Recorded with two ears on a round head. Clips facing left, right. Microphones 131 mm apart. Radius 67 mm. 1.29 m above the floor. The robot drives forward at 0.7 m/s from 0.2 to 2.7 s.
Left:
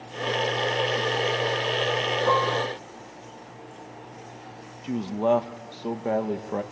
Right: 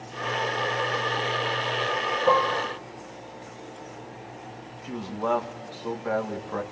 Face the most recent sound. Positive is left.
turn(degrees=25)  # may be behind; listen again after turning